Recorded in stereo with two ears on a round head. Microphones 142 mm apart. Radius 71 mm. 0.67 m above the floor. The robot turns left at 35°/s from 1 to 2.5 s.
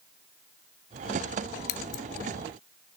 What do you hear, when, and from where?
1.7 s scissors: 70° left (ahead or behind), 0.8 m; by 2.0 s 80° left, 0.8 m